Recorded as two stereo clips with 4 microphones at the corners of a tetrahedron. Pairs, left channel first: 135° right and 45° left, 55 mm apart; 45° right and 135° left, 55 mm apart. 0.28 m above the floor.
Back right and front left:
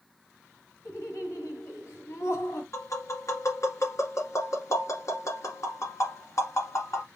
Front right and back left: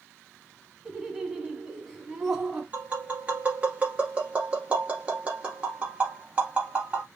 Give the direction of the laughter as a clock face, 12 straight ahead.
5 o'clock.